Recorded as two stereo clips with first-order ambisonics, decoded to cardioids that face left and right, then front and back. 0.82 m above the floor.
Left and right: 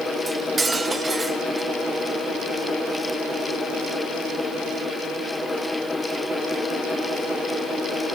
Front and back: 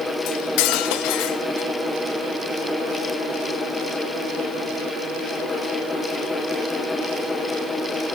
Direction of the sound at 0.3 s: 10° right.